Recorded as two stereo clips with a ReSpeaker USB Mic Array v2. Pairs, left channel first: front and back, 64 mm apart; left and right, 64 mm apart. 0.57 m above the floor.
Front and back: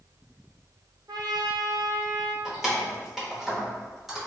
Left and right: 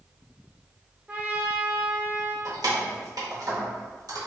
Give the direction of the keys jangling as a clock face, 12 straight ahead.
3 o'clock.